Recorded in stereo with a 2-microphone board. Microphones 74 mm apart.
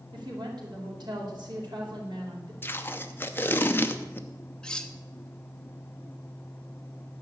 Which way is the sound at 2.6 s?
30° left (ahead or behind).